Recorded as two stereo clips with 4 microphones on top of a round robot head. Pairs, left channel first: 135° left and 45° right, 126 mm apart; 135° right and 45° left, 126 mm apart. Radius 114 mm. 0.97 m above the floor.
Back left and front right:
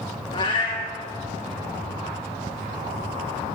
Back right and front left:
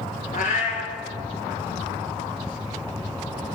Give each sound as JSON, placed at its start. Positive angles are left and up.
{"t": 0.3, "sound": "a cat meowing", "azimuth_deg": -170, "distance_m": 2.5}